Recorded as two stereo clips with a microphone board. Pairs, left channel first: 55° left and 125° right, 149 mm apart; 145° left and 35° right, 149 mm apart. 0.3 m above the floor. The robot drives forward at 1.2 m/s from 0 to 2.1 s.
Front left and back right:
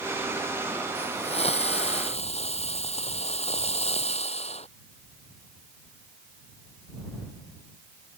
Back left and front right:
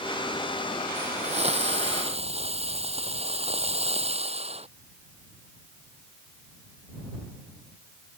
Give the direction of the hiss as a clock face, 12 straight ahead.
12 o'clock.